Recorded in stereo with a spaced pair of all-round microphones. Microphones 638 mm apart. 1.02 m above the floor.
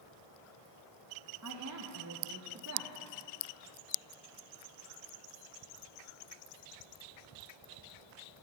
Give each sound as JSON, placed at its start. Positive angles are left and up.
{"t": 1.4, "sound": "a woman speaking", "side_deg": -30, "distance_m": 0.6}